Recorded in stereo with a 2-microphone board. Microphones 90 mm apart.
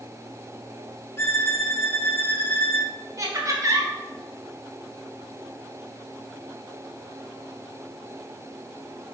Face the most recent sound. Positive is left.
turn(degrees=-35)  # may be behind; listen again after turning